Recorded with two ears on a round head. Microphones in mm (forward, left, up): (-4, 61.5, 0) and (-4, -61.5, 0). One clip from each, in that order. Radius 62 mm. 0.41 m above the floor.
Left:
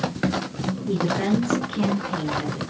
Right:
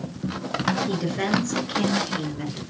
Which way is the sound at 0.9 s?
75° right (ahead or behind).